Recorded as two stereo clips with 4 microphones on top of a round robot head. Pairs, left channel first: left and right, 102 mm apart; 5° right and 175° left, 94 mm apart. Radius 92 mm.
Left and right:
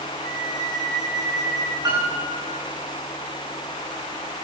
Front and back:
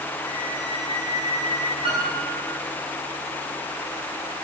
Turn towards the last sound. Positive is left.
turn(degrees=-150)